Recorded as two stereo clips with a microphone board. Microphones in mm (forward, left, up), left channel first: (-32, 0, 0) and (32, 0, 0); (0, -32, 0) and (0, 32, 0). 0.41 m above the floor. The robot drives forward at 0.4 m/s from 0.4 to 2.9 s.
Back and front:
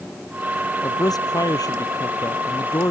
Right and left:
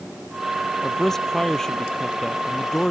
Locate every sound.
0.8 s a man speaking: 170° right